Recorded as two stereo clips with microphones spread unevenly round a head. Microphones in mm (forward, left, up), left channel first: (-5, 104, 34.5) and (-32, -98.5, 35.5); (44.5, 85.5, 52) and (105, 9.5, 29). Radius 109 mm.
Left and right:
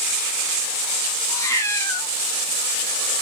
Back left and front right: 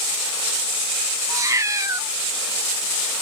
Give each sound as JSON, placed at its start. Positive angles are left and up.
{"t": 1.3, "sound": "a cat meowing", "azimuth_deg": 10, "distance_m": 0.6}